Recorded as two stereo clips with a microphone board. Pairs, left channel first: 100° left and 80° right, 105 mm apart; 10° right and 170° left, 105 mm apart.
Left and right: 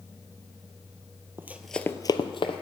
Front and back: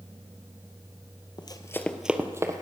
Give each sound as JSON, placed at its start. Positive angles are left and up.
{"t": 1.4, "sound": "running footsteps", "azimuth_deg": -15, "distance_m": 1.0}